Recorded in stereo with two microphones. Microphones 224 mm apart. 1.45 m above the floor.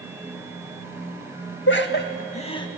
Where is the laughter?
55° left (ahead or behind), 2 m; by 2.7 s 15° left (ahead or behind), 1.8 m.